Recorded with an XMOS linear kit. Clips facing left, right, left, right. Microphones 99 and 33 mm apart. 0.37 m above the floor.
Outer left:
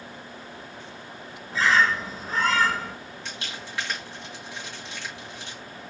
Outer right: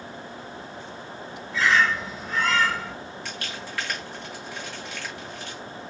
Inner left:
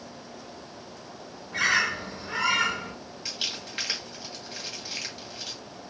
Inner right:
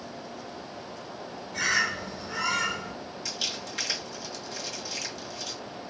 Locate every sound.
1.5 s a bird: 35° left (ahead or behind), 0.7 m
3.2 s crumpling: 20° left (ahead or behind), 2 m